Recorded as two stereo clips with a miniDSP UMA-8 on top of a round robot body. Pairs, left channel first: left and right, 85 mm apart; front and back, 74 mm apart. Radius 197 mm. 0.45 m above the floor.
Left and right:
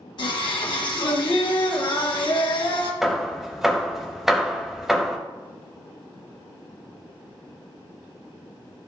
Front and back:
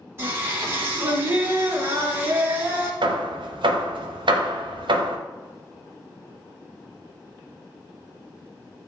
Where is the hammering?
175° right, 0.7 m.